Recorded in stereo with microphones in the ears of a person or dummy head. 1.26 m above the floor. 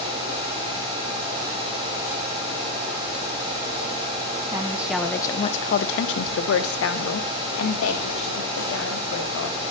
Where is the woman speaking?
10° right (ahead or behind), 1.0 m; by 9.6 s 60° left (ahead or behind), 3.5 m.